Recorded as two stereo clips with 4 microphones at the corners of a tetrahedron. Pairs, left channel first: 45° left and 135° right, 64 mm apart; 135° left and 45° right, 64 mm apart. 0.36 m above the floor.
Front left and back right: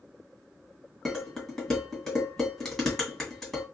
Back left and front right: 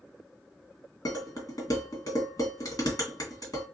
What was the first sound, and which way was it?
Dishes clattering, 130° left.